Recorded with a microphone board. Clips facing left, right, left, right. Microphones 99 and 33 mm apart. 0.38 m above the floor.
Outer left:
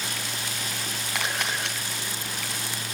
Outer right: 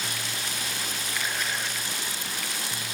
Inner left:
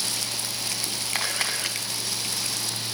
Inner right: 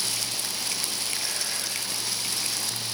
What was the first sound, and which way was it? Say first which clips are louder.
A camera shutter: outer left 3 dB, inner left 4 dB; 70° left (ahead or behind).